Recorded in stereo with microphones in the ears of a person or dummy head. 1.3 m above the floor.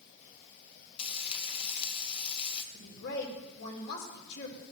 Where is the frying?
30° left (ahead or behind), 1.2 m.